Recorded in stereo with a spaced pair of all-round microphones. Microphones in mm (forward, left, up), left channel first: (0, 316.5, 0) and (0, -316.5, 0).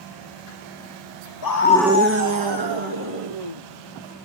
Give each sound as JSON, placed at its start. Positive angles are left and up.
{"t": 1.4, "sound": "a scream", "side_deg": 40, "distance_m": 0.5}